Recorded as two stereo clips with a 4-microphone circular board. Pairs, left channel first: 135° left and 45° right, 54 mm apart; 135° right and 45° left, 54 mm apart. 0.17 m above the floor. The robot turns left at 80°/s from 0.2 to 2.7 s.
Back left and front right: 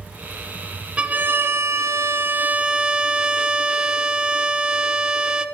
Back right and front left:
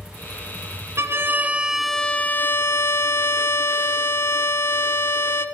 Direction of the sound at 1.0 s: 20° left.